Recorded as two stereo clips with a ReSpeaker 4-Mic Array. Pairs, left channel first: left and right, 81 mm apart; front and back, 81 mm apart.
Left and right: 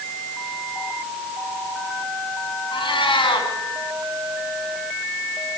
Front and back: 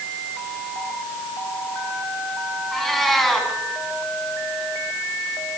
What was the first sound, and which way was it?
A cat meowing, 90° left.